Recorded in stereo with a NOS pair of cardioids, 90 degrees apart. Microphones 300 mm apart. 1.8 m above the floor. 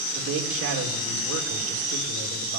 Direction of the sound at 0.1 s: 70° right.